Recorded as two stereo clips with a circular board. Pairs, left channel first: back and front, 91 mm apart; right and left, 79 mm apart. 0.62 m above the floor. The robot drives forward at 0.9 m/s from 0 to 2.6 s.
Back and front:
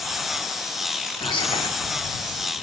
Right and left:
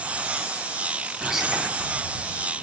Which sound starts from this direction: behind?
Whispering, at 1.2 s.